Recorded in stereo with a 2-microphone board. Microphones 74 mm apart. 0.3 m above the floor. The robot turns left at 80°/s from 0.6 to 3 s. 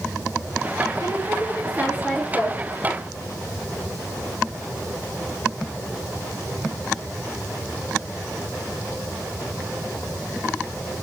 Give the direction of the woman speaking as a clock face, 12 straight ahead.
3 o'clock.